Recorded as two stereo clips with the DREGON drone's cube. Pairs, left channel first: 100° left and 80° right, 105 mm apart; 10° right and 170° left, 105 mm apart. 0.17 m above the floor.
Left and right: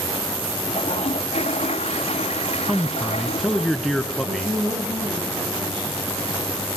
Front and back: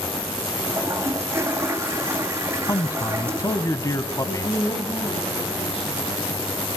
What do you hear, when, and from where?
0.7 s a toilet flushing: 105° left, 2.5 m
2.7 s a man speaking: 10° left, 1.4 m
4.2 s a woman speaking: 40° right, 8 m